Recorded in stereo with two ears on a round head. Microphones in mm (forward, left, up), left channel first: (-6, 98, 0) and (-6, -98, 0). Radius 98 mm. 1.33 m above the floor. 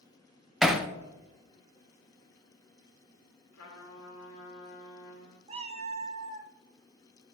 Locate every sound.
0.6 s hammering: centre (ahead or behind), 0.6 m
3.5 s a trumpet: 75° left (ahead or behind), 3 m
5.5 s a cat meowing: 30° right (ahead or behind), 0.8 m